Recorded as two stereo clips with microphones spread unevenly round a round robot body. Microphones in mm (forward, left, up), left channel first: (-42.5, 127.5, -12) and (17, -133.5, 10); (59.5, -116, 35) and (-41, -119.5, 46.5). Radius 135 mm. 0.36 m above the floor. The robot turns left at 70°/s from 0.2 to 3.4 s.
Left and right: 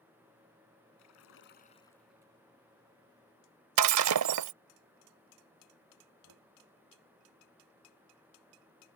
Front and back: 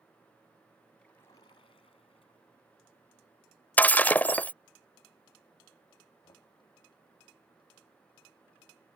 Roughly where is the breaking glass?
Right.